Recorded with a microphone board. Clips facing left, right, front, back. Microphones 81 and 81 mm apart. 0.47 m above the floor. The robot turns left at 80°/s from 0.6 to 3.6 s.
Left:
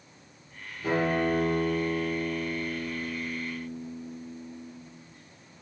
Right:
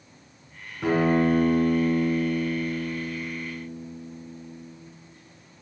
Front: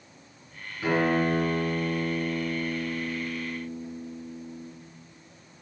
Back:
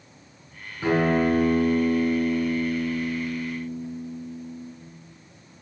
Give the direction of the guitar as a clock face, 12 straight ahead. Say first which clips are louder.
Right 5 dB, back 3 dB; 4 o'clock.